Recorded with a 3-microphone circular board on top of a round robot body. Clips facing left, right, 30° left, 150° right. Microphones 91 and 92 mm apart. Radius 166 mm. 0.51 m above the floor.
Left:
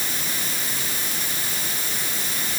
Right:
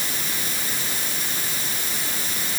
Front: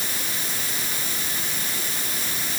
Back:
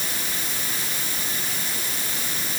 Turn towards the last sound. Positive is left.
No sound to turn to.